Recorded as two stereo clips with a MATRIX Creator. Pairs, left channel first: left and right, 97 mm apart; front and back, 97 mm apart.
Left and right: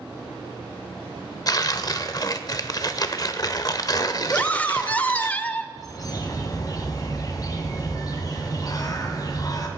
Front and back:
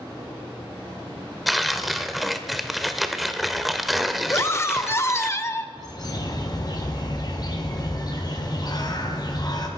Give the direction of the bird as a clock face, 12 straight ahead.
11 o'clock.